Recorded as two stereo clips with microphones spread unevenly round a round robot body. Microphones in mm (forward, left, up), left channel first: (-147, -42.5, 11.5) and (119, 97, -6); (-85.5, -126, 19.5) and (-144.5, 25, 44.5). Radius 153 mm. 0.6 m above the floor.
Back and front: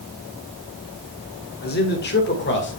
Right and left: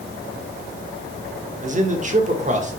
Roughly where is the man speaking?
Behind left.